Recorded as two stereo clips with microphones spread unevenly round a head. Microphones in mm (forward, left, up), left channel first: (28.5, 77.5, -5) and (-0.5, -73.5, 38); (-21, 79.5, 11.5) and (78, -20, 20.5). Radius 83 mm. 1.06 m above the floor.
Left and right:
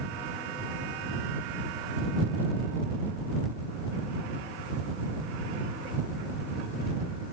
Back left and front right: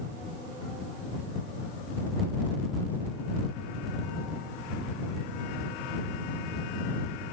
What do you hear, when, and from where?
Only background noise.